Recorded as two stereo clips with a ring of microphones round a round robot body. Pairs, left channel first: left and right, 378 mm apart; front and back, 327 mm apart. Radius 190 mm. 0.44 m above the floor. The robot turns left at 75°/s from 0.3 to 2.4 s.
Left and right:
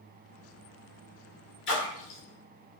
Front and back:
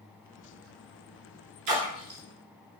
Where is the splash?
150° left, 2 m; by 2.2 s 110° left, 2 m.